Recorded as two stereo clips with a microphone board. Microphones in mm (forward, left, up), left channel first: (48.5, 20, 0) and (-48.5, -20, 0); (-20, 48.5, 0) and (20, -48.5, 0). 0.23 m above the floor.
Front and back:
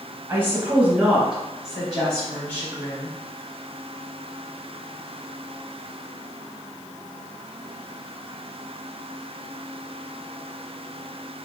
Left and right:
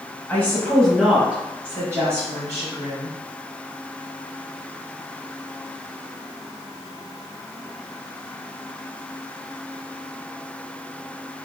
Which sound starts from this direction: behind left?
A woman speaking, at 0.3 s.